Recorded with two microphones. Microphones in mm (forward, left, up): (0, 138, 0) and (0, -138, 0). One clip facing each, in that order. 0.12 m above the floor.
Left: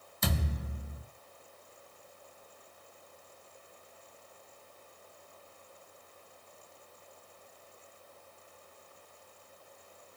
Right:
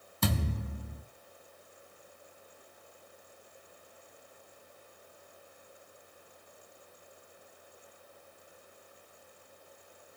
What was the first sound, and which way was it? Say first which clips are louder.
A thud: right 3 dB; 60° right (ahead or behind).